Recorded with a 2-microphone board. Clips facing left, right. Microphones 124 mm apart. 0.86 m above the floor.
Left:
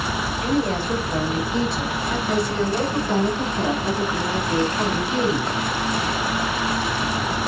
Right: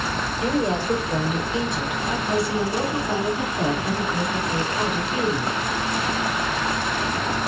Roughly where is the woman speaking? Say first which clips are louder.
Even; right.